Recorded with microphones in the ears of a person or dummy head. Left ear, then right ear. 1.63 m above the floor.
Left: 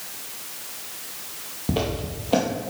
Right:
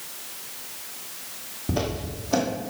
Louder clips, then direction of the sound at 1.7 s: Left 2 dB; 25° left (ahead or behind).